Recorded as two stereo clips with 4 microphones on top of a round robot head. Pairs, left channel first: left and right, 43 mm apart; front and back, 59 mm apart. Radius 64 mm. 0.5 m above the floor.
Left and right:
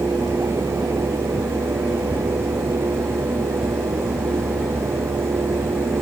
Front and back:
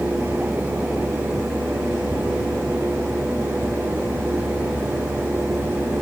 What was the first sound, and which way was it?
Only background noise.